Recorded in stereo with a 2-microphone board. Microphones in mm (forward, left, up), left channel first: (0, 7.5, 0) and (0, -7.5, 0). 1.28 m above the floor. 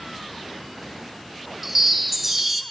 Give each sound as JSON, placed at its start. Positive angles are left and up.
{"t": 1.6, "sound": "a chime", "side_deg": -15, "distance_m": 0.5}